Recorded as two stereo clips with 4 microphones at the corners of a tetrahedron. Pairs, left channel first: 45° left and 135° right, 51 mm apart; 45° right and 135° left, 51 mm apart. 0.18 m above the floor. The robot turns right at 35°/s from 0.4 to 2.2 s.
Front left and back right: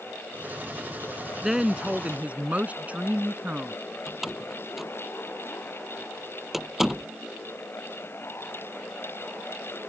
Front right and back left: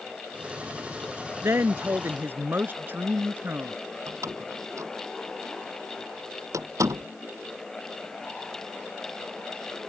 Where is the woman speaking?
140° left; by 3.8 s 170° left.